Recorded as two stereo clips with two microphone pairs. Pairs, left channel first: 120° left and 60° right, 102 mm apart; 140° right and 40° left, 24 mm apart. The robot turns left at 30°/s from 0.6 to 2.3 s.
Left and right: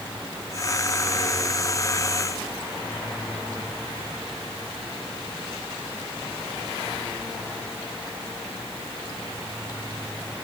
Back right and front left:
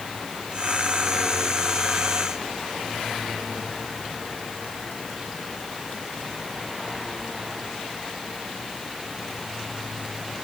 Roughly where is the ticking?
I don't hear ticking.